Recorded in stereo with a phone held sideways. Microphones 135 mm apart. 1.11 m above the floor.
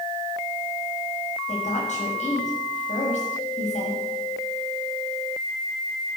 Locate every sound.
1.5 s a woman speaking: 60° left (ahead or behind), 6.5 m